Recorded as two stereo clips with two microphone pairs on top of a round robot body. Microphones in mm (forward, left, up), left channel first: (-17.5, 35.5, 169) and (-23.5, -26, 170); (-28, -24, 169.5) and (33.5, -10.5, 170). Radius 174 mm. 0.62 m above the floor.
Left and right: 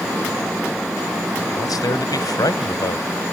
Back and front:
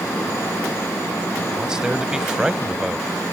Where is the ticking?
No ticking in this recording.